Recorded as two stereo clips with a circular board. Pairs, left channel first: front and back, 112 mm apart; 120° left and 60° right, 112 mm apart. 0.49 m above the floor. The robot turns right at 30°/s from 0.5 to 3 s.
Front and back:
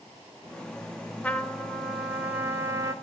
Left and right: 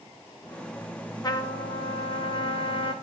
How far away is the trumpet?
About 1.1 m.